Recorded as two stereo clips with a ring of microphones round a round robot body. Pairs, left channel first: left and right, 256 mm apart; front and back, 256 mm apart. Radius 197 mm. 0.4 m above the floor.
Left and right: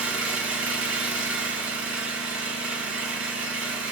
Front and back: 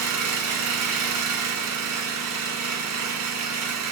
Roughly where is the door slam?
No door slam in this recording.